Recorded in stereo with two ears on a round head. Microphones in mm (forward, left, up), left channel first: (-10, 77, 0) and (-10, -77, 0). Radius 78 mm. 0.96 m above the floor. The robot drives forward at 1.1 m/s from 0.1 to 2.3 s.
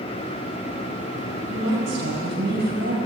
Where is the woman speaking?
85° right, 4.5 m; by 3.0 s 75° right (ahead or behind), 4.5 m.